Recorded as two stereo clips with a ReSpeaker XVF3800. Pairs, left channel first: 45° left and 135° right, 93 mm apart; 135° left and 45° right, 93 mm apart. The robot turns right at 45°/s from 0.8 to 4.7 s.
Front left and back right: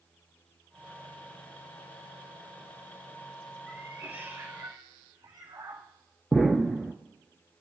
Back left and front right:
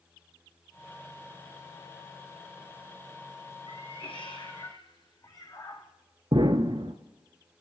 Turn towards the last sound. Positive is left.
turn(degrees=-45)